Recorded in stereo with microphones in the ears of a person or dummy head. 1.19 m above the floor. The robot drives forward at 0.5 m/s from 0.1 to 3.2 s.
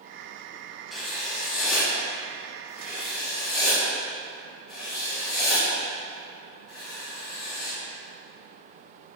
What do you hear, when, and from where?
0.9 s writing: 5° right (ahead or behind), 0.9 m; by 7.8 s centre (ahead or behind), 2.0 m